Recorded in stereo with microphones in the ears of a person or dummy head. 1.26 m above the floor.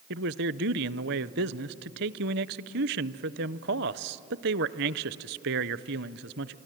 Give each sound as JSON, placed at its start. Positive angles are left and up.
{"t": 0.1, "sound": "a man speaking", "side_deg": -55, "distance_m": 0.6}